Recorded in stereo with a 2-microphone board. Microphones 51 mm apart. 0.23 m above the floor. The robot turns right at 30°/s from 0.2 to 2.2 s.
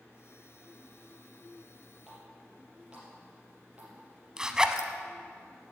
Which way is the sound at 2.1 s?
10° right (ahead or behind).